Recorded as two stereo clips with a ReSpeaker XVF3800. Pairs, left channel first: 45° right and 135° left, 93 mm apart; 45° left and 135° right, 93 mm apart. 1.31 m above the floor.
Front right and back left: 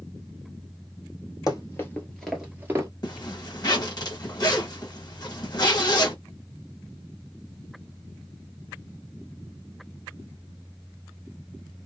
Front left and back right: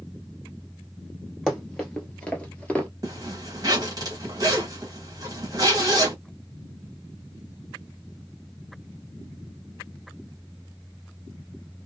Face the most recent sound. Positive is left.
turn(degrees=-90)